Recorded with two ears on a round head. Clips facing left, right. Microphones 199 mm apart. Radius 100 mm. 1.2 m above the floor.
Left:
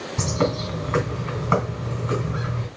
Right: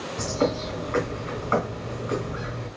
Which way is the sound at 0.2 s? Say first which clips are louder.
Left 1 dB; 60° left (ahead or behind).